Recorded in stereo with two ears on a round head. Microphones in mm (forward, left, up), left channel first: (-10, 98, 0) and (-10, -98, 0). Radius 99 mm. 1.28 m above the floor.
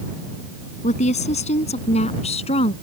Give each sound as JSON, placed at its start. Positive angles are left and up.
{"t": 0.8, "sound": "a woman speaking", "side_deg": 30}